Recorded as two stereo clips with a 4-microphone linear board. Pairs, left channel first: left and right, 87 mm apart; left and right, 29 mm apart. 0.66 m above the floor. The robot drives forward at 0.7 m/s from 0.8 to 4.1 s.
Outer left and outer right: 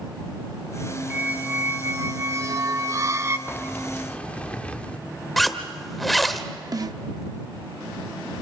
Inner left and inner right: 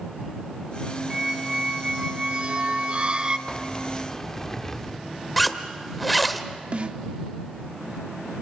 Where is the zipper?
Centre (ahead or behind), 1.1 m.